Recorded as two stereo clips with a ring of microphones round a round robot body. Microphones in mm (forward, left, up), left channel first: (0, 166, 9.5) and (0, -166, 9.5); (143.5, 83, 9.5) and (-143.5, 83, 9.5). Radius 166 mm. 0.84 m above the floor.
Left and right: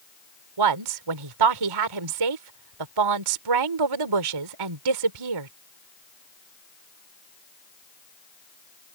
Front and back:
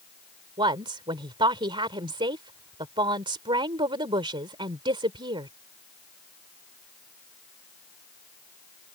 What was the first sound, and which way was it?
A woman speaking, 105° right.